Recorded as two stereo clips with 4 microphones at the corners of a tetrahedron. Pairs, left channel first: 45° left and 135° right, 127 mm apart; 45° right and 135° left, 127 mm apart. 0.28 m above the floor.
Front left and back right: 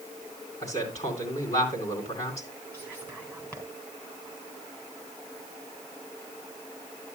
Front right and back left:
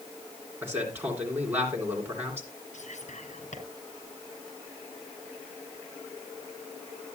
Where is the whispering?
30° right, 4 m.